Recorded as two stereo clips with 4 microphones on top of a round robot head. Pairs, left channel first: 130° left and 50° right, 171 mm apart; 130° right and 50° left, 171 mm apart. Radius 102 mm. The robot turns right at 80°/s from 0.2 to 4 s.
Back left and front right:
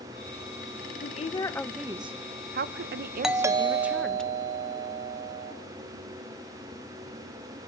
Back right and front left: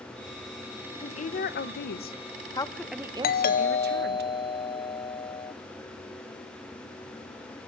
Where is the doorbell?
135° right, 1.0 m; by 5.5 s 75° right, 1.0 m.